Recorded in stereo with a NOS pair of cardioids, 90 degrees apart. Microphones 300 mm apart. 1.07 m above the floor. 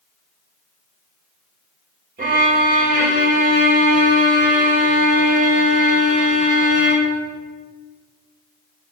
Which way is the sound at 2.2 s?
30° right.